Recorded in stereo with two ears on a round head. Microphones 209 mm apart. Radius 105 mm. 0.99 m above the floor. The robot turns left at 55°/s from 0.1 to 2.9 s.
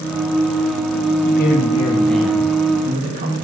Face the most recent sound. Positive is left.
turn(degrees=-40)